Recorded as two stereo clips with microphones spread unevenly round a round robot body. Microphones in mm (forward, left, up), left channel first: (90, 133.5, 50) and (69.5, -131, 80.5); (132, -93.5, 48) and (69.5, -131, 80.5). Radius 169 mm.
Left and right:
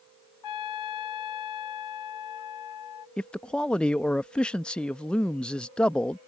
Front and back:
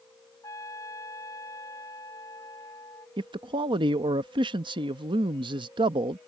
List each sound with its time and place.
0.4 s a trumpet: 100° left
3.2 s a man speaking: 170° left